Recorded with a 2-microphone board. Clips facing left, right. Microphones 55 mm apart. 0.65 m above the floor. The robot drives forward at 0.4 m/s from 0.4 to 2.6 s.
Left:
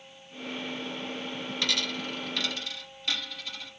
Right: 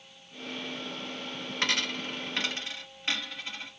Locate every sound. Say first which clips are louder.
1.6 s a dropped coin: right 2 dB; 40° right (ahead or behind), 1.3 m; by 3.7 s 30° right (ahead or behind), 1.6 m